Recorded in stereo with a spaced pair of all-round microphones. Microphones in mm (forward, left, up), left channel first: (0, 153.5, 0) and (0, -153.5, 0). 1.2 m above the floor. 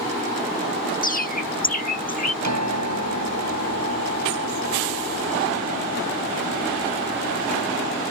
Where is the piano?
60° right (ahead or behind).